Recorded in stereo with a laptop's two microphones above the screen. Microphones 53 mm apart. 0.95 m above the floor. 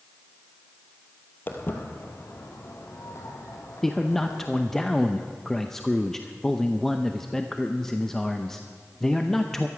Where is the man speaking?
5° left (ahead or behind), 0.7 m.